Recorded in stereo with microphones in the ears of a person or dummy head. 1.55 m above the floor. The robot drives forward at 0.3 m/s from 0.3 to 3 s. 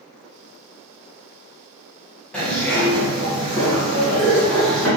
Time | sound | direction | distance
2.3 | a zipper | 10° left (ahead or behind) | 1.8 m